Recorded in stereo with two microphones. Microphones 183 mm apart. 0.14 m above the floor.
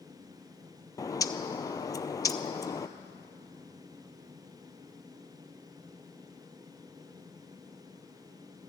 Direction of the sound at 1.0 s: 20° left (ahead or behind).